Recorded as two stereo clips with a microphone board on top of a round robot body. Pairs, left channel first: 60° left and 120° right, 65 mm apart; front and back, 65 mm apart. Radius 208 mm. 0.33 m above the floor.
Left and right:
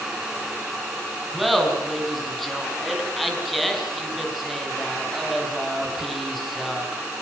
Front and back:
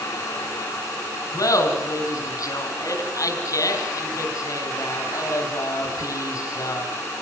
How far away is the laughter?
About 5 m.